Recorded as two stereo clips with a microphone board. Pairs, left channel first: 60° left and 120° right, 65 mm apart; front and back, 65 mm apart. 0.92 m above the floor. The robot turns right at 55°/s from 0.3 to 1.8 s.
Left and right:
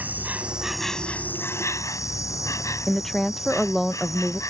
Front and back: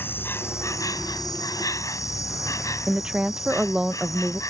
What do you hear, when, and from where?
0.0 s an insect: 55° right; by 4.5 s 25° left
2.9 s a woman speaking: 135° left